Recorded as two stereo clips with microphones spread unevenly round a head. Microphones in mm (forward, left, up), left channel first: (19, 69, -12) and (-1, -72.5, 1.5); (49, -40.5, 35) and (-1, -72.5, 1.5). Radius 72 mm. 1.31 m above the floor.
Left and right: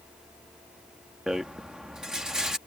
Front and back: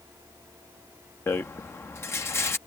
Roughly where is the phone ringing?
No phone ringing in this recording.